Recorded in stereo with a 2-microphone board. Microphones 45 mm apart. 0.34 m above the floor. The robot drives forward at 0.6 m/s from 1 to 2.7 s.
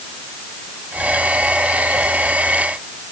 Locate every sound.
Only background noise.